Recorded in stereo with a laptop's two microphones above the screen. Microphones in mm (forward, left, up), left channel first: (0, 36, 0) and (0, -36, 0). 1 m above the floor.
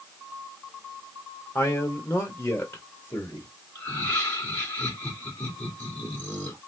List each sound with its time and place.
1.6 s a man speaking: 30° left (ahead or behind), 1.3 m
3.8 s laughter: 25° left (ahead or behind), 2 m